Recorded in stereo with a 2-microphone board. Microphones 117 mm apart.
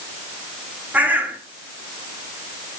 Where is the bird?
15° right (ahead or behind), 1.0 m.